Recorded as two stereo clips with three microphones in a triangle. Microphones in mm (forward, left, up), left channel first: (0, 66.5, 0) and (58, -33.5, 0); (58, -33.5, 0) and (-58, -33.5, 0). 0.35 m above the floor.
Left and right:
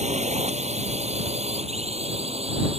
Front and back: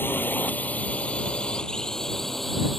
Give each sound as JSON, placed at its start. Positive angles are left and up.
{"t": 0.0, "sound": "a drone", "azimuth_deg": -70}